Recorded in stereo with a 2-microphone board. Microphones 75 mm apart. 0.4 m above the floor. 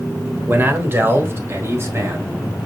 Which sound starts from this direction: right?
A man speaking, at 0.5 s.